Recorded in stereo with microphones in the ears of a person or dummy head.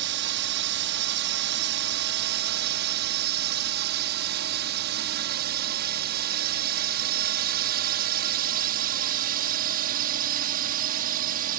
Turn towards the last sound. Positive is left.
turn(degrees=-45)  # may be behind; listen again after turning